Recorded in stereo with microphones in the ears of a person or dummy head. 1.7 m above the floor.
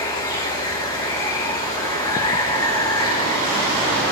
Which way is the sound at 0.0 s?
20° left (ahead or behind).